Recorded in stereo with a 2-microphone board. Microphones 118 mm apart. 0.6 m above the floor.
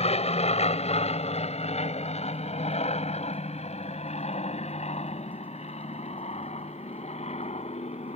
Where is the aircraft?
65° left (ahead or behind).